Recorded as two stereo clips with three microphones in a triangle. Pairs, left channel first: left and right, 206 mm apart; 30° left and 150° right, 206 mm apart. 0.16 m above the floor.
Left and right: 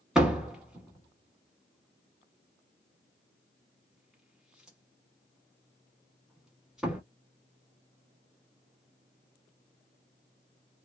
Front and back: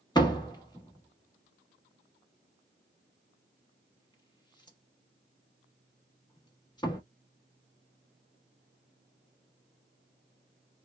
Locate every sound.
0.1 s a door slam: 5° right, 1.2 m